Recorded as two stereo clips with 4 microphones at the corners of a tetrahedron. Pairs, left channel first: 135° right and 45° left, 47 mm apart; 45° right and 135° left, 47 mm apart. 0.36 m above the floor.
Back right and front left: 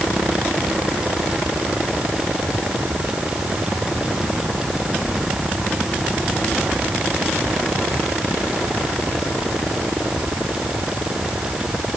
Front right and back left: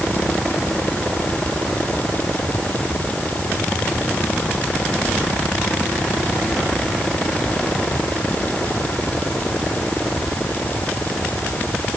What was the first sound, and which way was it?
Only background noise.